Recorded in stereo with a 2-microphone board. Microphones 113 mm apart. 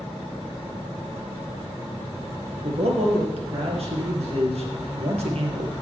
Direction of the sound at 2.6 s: 65° right (ahead or behind).